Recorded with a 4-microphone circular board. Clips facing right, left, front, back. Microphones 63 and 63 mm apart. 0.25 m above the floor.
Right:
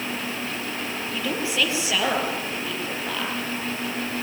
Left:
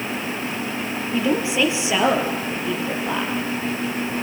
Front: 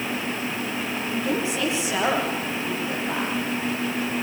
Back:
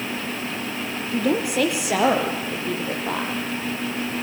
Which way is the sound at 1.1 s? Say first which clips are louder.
Left 6 dB, back 5 dB; 160° left.